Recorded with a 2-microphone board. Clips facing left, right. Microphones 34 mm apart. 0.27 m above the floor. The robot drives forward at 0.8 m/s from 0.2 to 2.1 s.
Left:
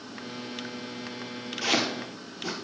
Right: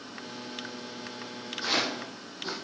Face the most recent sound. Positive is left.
turn(degrees=80)